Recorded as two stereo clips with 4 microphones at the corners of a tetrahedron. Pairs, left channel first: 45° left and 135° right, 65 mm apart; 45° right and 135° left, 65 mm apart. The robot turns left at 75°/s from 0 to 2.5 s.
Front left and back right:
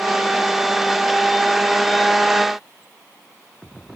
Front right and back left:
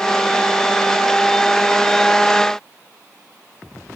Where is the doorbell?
I don't hear a doorbell.